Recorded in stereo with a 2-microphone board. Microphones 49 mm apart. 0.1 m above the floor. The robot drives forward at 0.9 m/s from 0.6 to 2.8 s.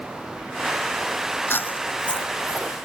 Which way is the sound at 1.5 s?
55° left (ahead or behind).